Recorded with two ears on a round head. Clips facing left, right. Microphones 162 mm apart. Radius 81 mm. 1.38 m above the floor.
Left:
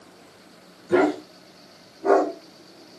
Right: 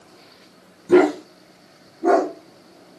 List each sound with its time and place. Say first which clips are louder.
0.9 s a dog barking: right 5 dB; 70° right (ahead or behind), 4.5 m; by 2.3 s 55° right (ahead or behind), 5 m